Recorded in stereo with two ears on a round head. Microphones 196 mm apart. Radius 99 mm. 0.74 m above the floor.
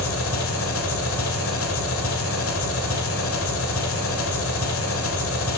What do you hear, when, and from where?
0.0 s an engine running: 65° left (ahead or behind), 2 m